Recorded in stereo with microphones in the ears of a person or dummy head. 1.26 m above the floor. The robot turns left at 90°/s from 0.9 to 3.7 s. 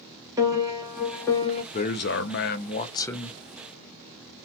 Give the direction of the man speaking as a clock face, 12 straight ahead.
7 o'clock.